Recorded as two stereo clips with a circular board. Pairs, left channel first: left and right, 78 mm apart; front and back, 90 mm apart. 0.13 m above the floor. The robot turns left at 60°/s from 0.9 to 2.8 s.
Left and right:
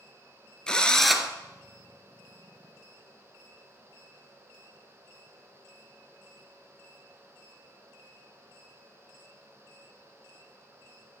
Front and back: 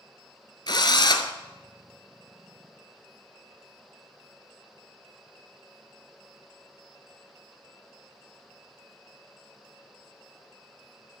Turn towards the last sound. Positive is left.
turn(degrees=-100)